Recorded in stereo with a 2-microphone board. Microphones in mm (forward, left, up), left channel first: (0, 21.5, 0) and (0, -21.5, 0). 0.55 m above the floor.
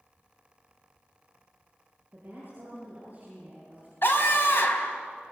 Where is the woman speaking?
45° right (ahead or behind), 9 m; by 3.9 s 35° right (ahead or behind), 9.5 m.